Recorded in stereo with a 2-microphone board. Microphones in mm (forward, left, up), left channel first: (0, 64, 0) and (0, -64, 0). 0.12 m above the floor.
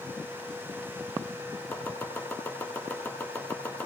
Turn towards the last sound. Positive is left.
turn(degrees=20)  # may be behind; listen again after turning